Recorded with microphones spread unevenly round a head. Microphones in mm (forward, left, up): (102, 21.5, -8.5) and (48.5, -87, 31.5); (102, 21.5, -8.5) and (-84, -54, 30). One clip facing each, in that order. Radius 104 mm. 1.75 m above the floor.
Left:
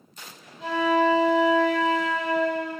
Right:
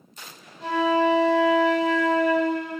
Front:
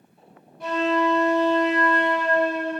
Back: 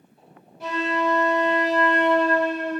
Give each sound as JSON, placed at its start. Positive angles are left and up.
{"t": 0.6, "sound": "a flute", "azimuth_deg": -125, "distance_m": 1.2}